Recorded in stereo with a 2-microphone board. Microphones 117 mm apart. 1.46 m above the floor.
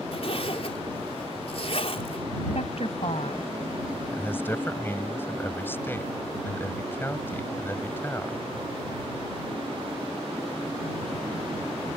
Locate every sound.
0.1 s a zipper: 55° left (ahead or behind)
2.5 s a woman speaking: 60° left (ahead or behind)
4.1 s a man speaking: 20° left (ahead or behind)